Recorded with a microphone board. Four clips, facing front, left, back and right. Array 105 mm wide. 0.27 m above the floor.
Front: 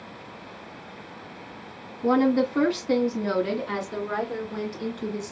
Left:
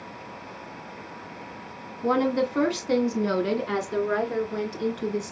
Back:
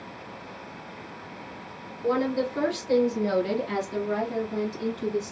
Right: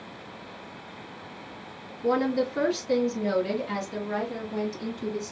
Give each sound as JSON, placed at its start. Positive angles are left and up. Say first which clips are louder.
{"t": 2.0, "sound": "a woman speaking", "louder": "left 1 dB, front 4 dB", "azimuth_deg": 50, "distance_m": 1.8}